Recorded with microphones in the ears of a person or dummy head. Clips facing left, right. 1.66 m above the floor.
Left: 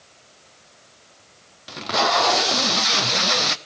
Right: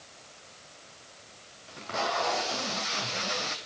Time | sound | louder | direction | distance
1.7 | tape being pulled | left 10 dB | 75° left (ahead or behind) | 0.6 m